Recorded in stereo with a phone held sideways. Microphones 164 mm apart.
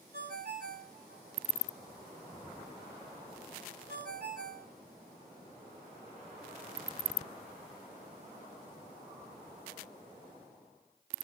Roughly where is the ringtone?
Right.